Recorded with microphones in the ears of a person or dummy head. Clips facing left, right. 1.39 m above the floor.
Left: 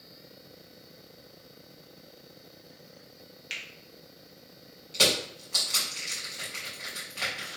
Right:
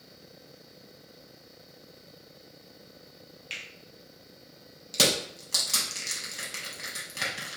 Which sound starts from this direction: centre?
A finger snap, at 3.5 s.